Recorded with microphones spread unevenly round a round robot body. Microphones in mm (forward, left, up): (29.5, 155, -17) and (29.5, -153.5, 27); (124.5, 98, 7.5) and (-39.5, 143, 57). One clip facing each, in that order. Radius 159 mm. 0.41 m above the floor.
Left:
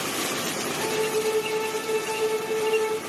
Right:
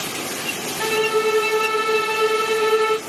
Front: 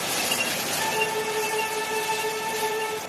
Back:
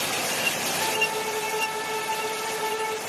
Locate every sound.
0.8 s a violin: 90° right, 0.9 m